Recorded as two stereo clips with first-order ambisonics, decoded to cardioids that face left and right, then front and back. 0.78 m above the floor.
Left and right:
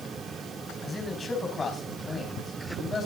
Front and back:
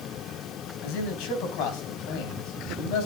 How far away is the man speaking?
About 4.5 m.